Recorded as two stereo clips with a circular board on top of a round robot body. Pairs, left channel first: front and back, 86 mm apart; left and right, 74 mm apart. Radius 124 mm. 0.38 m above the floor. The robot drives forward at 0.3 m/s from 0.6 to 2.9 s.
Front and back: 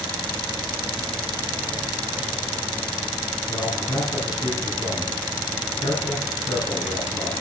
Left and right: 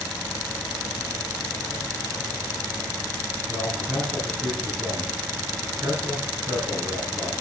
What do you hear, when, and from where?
3.5 s a man speaking: 45° right, 4 m